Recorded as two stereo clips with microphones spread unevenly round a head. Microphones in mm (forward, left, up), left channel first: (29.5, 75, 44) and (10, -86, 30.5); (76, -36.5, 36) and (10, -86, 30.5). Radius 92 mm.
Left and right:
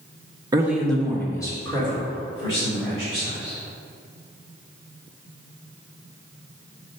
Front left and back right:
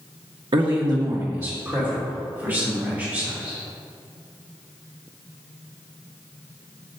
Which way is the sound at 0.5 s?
165° right.